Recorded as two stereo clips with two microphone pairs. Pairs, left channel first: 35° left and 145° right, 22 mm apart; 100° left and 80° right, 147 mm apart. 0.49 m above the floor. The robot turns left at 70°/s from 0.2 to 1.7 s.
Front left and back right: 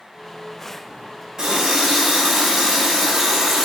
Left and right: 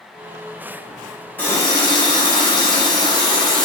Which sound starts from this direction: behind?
A running tap, at 1.4 s.